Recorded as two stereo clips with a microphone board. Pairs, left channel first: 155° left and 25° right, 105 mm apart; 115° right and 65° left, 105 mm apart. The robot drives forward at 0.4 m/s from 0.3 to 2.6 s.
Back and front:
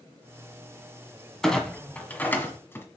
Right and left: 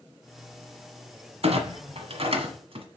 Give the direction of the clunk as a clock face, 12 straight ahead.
10 o'clock.